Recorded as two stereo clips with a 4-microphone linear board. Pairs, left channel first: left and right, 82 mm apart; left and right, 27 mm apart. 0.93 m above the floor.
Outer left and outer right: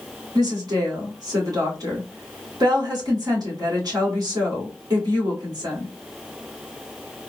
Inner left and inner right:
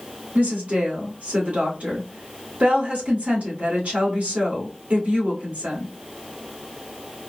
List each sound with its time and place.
0.3 s a woman speaking: 55° right (ahead or behind), 1.9 m